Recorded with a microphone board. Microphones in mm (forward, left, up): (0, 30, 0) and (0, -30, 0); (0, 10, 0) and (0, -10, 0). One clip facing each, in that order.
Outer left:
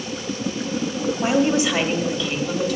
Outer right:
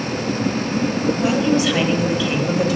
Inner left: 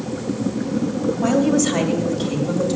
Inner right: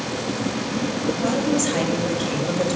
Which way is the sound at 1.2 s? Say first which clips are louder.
Even, inner left 5 dB; 25° left (ahead or behind).